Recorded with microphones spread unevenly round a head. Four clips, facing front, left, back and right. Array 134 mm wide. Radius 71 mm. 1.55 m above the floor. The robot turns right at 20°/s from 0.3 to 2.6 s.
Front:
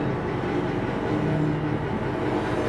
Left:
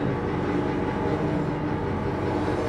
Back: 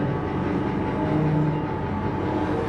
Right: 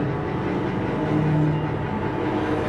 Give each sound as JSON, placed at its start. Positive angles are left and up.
{"t": 0.0, "sound": "an engine running", "azimuth_deg": -115, "distance_m": 0.7}